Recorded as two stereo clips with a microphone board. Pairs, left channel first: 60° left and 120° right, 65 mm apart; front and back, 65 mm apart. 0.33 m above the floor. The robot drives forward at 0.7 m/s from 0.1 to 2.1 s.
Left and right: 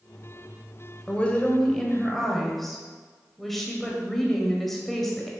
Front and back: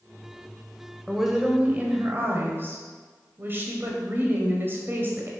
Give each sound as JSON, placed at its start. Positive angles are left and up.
{"t": 1.1, "sound": "a woman speaking", "azimuth_deg": 85, "distance_m": 1.0}